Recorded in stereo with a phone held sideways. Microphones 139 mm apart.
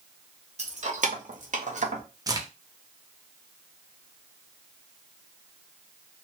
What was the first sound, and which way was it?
Keys jangling, 55° right (ahead or behind).